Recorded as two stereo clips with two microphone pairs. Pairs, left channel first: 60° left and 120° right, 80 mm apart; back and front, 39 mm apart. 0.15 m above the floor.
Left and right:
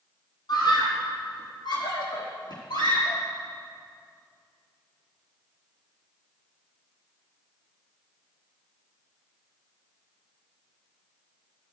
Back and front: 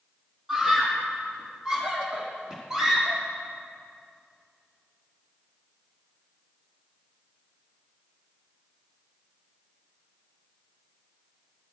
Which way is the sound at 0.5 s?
80° left.